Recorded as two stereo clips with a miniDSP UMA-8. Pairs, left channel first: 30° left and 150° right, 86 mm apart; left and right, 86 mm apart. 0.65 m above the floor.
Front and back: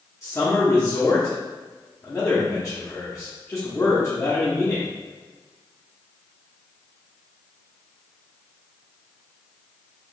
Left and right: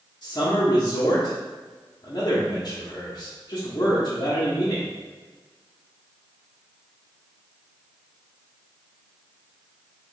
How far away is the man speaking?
About 0.8 m.